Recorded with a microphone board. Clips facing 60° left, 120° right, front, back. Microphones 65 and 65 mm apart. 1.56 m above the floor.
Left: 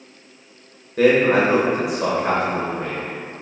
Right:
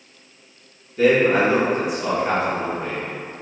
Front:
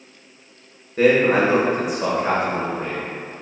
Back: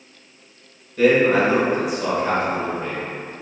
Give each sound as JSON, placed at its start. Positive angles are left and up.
{"t": 1.0, "sound": "a man speaking", "azimuth_deg": 50, "distance_m": 1.5}